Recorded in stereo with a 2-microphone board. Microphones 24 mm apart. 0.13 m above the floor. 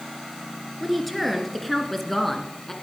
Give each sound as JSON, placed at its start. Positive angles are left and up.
{"t": 0.8, "sound": "a woman speaking", "side_deg": 0, "distance_m": 2.0}